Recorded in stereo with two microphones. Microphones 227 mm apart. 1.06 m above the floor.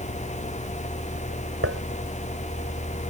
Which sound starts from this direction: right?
Dishes clattering, at 1.6 s.